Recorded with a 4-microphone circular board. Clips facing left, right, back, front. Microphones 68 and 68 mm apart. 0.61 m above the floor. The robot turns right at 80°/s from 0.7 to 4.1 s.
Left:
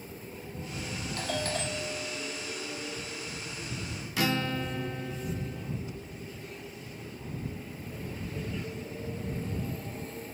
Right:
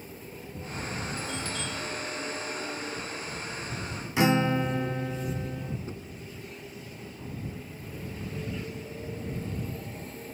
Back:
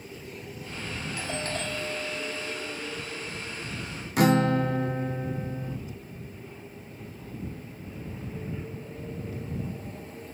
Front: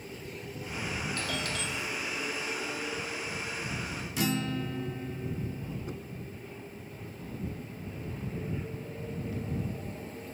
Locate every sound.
1.2 s a doorbell: 100° left; by 2.7 s 130° right
4.2 s a guitar: 155° right
5.9 s knocking: 35° right